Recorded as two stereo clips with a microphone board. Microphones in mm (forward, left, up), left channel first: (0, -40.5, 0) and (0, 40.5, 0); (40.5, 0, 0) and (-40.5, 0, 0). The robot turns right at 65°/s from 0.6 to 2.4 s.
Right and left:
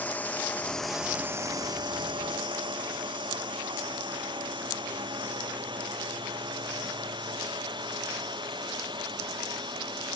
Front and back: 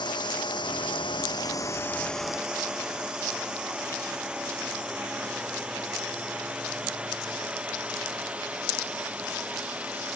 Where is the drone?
20° right; by 10.2 s 105° left.